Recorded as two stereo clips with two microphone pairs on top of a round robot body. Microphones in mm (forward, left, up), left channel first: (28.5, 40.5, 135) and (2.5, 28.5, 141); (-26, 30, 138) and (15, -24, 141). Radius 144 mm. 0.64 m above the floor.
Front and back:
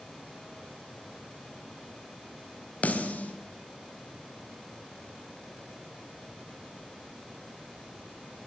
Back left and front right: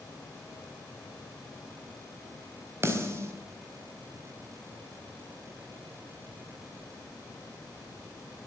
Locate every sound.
2.8 s a snare drum: straight ahead, 4 m